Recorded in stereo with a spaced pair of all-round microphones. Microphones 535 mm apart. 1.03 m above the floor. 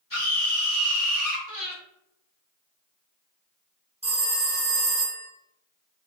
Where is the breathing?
40° right (ahead or behind), 1.3 m.